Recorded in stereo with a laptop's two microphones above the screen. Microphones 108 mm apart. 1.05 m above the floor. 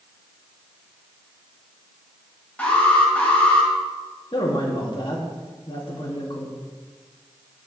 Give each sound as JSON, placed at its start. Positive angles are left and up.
{"t": 2.6, "sound": "an alarm", "side_deg": 15, "distance_m": 2.5}
{"t": 4.3, "sound": "a man speaking", "side_deg": 45, "distance_m": 2.5}